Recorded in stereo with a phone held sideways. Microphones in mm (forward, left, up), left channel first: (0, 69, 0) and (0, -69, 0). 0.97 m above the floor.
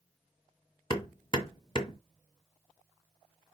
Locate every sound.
0.9 s hammering: 35° left (ahead or behind), 1.8 m